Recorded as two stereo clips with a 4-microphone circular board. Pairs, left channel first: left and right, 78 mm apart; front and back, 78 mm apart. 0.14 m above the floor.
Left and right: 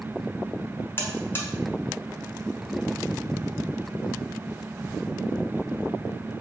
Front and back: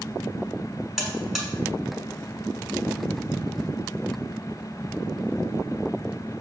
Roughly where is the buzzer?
Left.